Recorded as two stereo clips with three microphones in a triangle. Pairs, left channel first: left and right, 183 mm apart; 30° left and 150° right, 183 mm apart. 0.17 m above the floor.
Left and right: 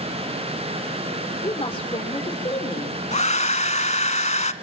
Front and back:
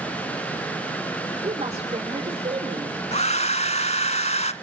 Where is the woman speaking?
150° left, 6 m.